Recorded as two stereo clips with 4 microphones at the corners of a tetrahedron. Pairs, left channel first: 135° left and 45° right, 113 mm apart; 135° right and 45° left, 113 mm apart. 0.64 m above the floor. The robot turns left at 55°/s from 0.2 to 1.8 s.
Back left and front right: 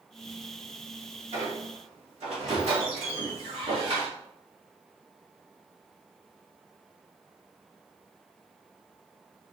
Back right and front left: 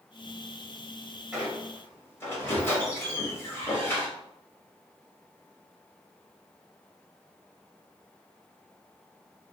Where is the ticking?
No ticking in this recording.